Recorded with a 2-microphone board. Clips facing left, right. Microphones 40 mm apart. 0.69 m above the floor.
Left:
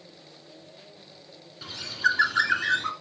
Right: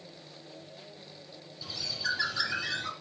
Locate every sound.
1.6 s a bird: 65° left (ahead or behind), 2.5 m